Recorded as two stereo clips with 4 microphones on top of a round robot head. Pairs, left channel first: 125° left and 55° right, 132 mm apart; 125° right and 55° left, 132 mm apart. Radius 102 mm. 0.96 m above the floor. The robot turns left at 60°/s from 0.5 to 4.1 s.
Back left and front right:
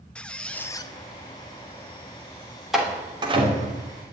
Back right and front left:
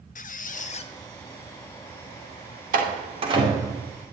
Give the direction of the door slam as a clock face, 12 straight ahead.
11 o'clock.